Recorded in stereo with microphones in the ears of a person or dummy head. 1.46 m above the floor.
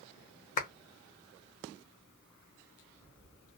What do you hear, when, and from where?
0.6 s a clap: 40° left (ahead or behind), 0.6 m